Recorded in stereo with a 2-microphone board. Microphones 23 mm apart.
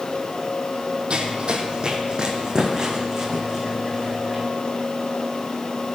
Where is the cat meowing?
I don't hear a cat meowing.